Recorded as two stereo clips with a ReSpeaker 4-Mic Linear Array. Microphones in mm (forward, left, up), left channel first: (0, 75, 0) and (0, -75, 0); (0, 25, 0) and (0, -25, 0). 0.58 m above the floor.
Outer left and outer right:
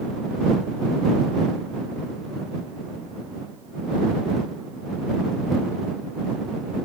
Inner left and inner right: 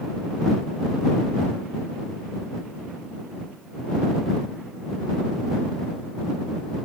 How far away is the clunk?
No clunk in this recording.